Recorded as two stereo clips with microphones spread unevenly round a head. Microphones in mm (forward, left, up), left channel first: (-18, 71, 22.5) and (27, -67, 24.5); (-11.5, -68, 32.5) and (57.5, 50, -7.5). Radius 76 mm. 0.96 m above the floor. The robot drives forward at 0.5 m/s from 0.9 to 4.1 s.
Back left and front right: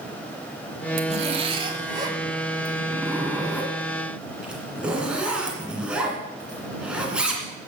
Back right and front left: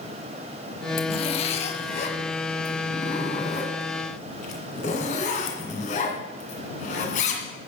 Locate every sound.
1.0 s a zipper: 105° right, 1.1 m; by 7.4 s 155° right, 2 m